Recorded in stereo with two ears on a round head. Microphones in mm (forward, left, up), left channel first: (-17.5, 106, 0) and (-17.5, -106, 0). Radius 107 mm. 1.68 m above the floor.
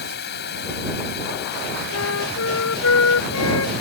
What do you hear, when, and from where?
0.0 s running water: 45° left (ahead or behind)
1.9 s a flute: 65° left (ahead or behind)